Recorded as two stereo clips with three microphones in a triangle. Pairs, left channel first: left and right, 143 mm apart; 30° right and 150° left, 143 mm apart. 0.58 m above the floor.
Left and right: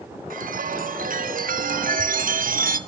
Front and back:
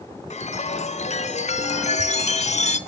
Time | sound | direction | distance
0.3 | a chime | 70° right | 0.8 m